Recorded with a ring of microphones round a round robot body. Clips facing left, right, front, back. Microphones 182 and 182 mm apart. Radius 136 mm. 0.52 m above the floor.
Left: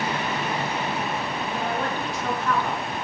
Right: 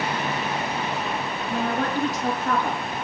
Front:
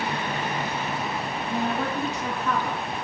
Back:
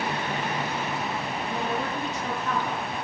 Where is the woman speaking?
45° right, 8.5 m.